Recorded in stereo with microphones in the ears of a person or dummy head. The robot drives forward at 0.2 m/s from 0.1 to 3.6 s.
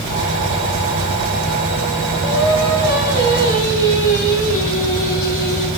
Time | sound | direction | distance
2.2 | singing | 50° left (ahead or behind) | 5.5 m